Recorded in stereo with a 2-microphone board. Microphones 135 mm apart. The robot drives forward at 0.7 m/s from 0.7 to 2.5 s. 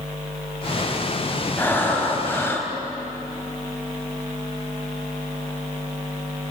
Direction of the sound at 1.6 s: 15° left (ahead or behind).